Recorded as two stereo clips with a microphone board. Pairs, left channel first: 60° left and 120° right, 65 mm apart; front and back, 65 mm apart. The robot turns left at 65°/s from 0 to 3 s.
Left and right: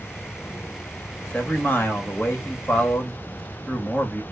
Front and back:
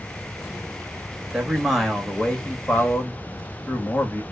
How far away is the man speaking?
About 0.8 m.